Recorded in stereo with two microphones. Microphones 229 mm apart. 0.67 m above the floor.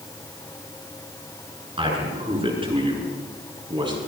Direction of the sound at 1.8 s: 25° right (ahead or behind).